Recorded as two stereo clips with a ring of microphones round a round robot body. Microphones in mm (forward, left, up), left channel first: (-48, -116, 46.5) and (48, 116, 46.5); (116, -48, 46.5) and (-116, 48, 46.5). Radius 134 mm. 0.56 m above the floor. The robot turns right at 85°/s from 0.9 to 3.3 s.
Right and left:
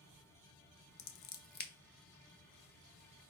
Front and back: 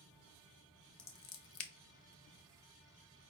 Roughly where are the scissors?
Right.